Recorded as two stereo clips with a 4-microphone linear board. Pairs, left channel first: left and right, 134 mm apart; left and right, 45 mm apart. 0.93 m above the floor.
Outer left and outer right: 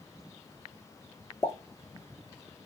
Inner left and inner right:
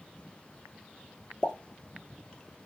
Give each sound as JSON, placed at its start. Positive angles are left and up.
{"t": 1.4, "sound": "a pop", "side_deg": 20, "distance_m": 0.7}